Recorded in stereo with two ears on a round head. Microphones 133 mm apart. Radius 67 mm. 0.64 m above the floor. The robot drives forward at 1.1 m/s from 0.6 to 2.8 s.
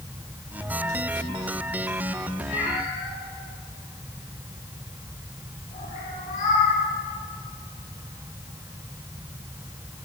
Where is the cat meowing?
55° left (ahead or behind), 7.5 m.